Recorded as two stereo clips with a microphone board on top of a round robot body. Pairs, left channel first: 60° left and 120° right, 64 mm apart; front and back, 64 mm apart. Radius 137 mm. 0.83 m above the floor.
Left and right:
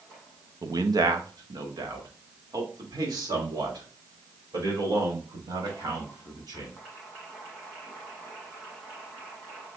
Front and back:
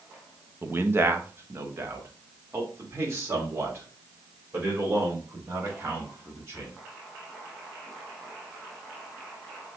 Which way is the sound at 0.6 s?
125° right.